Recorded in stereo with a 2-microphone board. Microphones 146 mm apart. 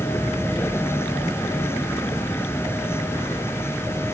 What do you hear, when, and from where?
0.0 s a vehicle: 15° left (ahead or behind)